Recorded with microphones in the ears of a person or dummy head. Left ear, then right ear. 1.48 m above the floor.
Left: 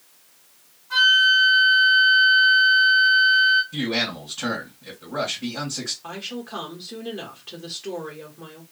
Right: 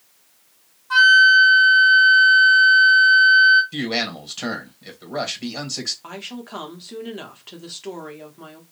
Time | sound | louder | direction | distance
0.9 | a flute | right 5 dB | 60° right (ahead or behind) | 1.4 m
3.7 | a man speaking | even | 55° right (ahead or behind) | 1.6 m
6.0 | a woman speaking | left 1 dB | 30° right (ahead or behind) | 0.8 m